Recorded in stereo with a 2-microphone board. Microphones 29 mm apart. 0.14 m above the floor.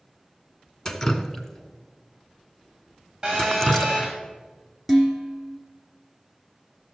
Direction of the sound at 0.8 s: 15° left (ahead or behind).